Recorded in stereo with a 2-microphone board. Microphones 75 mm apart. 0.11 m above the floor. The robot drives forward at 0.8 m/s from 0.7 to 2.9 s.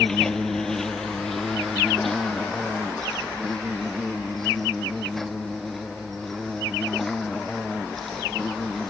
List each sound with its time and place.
0.0 s an insect: 5° left (ahead or behind)